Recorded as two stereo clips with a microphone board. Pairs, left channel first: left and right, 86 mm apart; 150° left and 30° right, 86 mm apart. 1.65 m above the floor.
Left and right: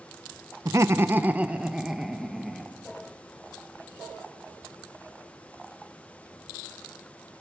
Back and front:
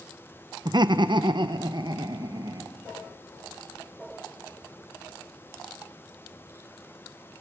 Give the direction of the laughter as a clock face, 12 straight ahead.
2 o'clock.